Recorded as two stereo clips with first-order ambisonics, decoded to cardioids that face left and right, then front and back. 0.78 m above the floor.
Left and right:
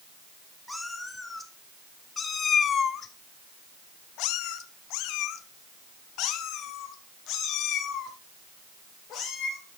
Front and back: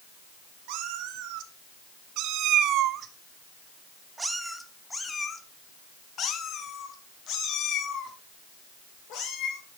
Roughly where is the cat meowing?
Behind.